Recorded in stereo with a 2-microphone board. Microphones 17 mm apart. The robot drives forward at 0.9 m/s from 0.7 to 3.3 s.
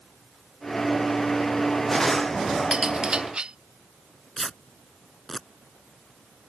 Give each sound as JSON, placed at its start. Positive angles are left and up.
{"t": 2.7, "sound": "cutlery clinking", "side_deg": -85}
{"t": 4.4, "sound": "tearing paper", "side_deg": 20}